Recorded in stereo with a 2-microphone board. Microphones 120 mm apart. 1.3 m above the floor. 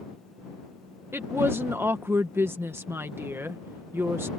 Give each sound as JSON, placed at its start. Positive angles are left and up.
{"t": 1.1, "sound": "a woman speaking", "side_deg": -20}